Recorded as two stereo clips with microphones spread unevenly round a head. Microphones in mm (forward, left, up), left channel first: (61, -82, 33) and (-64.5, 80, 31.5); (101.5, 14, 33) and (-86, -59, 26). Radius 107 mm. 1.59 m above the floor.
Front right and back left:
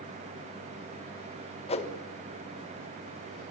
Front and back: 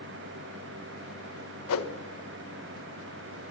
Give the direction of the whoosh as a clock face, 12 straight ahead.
12 o'clock.